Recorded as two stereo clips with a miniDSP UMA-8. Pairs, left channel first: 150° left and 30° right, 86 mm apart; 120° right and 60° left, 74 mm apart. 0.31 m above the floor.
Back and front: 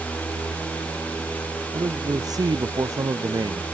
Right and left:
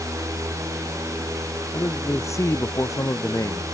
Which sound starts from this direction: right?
A man speaking, at 1.7 s.